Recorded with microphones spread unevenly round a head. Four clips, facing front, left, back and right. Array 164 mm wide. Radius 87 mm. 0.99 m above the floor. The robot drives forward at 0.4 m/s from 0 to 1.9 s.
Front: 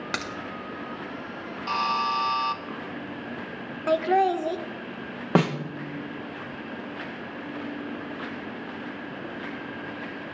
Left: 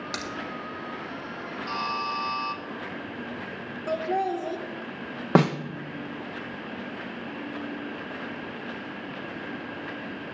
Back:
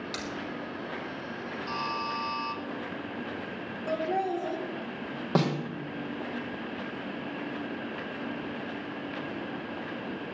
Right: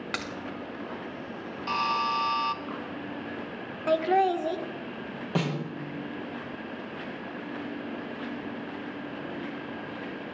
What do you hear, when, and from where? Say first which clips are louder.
0.1 s a crack: right 1 dB, front 8 dB; 10° right, 1.3 m
1.7 s a buzzer: right 3 dB, front 8 dB; 25° right, 0.9 m; by 2.6 s 30° right, 0.8 m
3.9 s laughter: right 4 dB, front 8 dB; 25° right, 0.8 m
5.3 s a snare drum: left 9 dB, front 4 dB; 65° left, 1.1 m